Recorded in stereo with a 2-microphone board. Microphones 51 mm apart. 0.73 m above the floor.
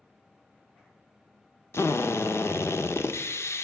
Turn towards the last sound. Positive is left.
turn(degrees=60)  # may be behind; listen again after turning